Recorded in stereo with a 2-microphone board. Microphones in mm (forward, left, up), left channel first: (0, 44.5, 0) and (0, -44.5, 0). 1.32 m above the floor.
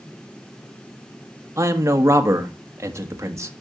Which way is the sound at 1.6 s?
30° right (ahead or behind).